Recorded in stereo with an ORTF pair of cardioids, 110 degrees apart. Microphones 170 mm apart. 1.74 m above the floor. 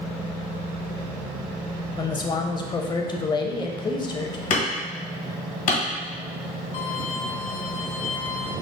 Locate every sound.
1.9 s a man speaking: 25° left, 0.7 m
4.5 s hammering: 50° left, 1.7 m
6.7 s a violin: 40° left, 1.4 m